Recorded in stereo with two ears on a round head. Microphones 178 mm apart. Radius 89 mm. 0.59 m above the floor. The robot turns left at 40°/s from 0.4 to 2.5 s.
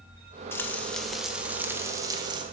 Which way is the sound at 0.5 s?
25° left.